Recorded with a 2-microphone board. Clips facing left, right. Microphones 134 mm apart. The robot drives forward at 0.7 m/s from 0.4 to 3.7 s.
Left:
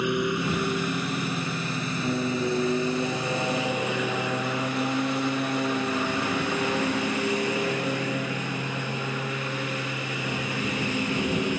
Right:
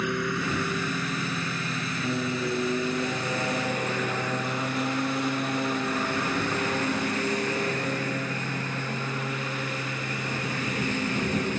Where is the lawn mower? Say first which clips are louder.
Left 3 dB; 15° left (ahead or behind); by 11.6 s 10° left (ahead or behind).